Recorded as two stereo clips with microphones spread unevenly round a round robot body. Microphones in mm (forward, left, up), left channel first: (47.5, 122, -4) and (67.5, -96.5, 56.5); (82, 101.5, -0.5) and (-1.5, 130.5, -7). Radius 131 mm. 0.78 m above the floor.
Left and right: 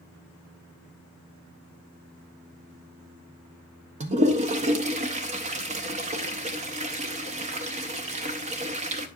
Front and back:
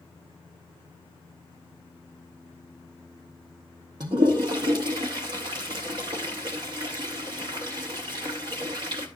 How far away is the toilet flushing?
About 0.6 m.